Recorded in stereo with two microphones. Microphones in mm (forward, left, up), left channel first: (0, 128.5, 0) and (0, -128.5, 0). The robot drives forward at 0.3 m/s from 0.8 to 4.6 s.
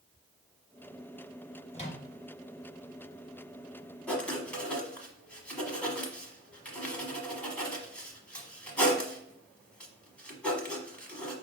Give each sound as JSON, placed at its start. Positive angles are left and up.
{"t": 1.7, "sound": "a microwave", "side_deg": 25, "distance_m": 1.3}
{"t": 4.1, "sound": "writing", "side_deg": 5, "distance_m": 1.0}